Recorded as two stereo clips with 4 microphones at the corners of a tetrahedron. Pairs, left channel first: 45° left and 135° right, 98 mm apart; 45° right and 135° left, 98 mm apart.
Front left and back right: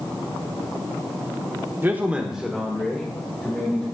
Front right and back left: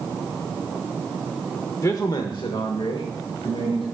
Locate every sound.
1.8 s a man speaking: 80° right, 1.0 m; by 3.8 s 30° right, 2.5 m